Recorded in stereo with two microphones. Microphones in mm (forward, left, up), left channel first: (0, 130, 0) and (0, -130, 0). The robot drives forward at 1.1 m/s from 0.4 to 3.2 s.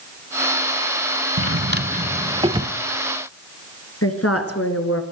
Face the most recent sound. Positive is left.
turn(degrees=60)  # may be behind; listen again after turning